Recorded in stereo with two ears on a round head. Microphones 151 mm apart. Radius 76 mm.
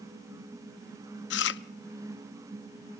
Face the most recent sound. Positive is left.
turn(degrees=70)  # may be behind; listen again after turning